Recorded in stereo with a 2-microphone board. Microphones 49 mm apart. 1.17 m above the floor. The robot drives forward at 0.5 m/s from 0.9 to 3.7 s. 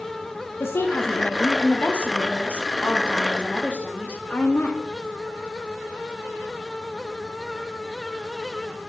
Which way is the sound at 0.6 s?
55° left (ahead or behind).